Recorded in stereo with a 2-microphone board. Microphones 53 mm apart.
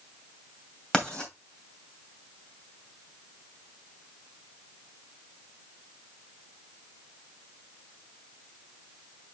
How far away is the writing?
About 2.5 m.